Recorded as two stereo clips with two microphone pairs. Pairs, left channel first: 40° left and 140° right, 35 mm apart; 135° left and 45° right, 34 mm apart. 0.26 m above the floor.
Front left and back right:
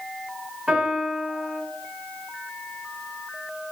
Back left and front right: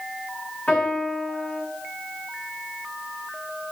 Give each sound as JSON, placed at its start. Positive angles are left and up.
{"t": 0.7, "sound": "a piano", "azimuth_deg": 155, "distance_m": 1.9}